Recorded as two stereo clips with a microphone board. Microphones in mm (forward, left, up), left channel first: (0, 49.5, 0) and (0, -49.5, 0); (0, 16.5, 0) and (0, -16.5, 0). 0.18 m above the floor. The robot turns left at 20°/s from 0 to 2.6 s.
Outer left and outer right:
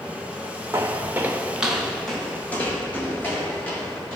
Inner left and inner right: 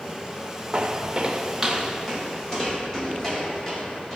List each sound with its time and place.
0.7 s footsteps: 35° right (ahead or behind), 0.7 m; by 4.2 s 20° left (ahead or behind), 3 m